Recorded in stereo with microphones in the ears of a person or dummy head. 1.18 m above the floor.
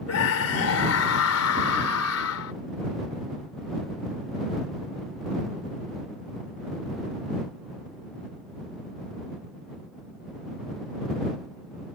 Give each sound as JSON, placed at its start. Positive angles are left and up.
{"t": 0.1, "sound": "a scream", "side_deg": 85}